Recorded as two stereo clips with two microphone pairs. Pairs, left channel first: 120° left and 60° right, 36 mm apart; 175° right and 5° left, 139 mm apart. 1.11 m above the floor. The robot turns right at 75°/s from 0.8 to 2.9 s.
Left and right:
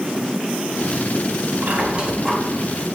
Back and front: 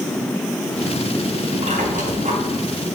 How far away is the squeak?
About 2.5 m.